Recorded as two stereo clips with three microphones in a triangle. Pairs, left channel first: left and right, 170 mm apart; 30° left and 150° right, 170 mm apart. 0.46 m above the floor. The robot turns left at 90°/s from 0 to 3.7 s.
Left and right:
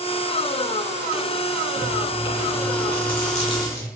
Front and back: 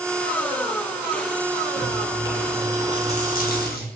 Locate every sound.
1.8 s chewing: 165° right, 0.6 m; by 3.9 s 20° left, 0.6 m